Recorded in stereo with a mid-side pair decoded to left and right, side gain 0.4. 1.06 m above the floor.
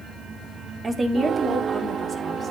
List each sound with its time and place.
0.8 s a woman speaking: 35° right, 1.6 m; by 2.5 s 45° right, 3 m